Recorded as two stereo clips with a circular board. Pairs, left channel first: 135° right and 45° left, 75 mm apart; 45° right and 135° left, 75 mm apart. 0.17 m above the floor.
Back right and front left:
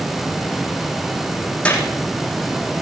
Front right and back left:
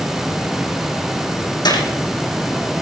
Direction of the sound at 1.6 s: 65° right.